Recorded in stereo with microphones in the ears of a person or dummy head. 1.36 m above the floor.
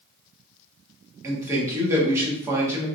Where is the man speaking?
20° right (ahead or behind), 1.1 m.